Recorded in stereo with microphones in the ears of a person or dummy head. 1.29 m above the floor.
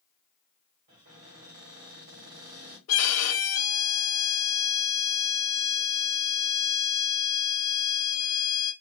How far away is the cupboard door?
About 1.6 m.